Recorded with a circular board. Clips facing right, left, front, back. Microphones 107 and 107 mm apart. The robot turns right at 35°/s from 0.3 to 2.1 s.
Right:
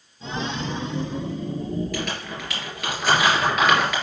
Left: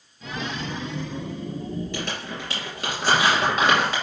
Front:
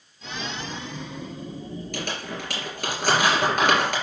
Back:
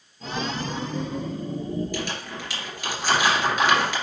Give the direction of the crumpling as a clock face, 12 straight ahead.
11 o'clock.